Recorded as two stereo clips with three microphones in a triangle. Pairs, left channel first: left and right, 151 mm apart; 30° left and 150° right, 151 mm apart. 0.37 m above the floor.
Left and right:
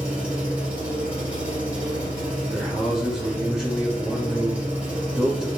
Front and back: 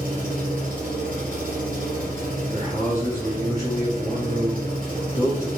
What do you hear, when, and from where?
0.0 s an engine running: 170° right, 1.3 m
2.5 s a man speaking: 5° right, 0.8 m